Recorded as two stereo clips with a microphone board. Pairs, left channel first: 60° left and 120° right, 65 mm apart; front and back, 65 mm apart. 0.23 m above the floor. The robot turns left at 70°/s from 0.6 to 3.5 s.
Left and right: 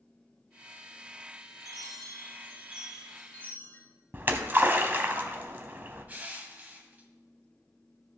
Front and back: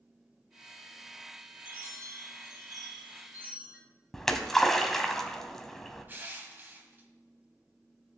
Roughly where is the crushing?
Behind right.